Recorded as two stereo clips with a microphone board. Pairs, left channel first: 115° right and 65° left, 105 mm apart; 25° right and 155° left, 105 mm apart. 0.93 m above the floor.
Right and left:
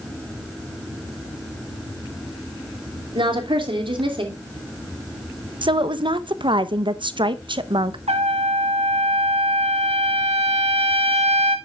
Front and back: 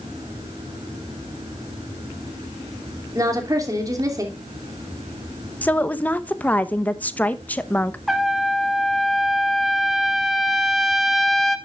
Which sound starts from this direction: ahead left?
A woman speaking, at 5.6 s.